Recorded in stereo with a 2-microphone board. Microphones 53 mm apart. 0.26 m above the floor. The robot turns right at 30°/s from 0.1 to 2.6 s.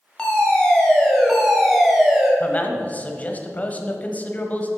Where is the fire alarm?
20° left (ahead or behind), 2 m; by 2.3 s 5° right (ahead or behind), 2 m.